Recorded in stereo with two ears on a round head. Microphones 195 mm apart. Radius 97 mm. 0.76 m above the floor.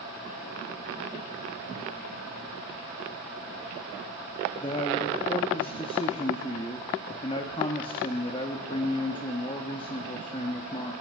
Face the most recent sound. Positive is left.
turn(degrees=25)  # may be behind; listen again after turning